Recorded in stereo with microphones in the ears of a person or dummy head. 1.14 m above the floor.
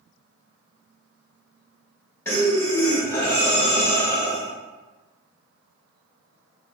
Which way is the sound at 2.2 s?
15° left (ahead or behind).